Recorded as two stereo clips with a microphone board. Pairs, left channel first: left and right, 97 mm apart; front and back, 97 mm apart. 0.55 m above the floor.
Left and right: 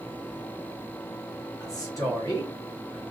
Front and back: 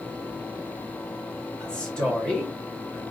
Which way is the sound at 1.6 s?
75° left.